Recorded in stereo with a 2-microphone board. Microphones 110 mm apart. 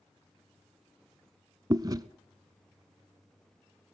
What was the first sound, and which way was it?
Chewing, 35° right (ahead or behind).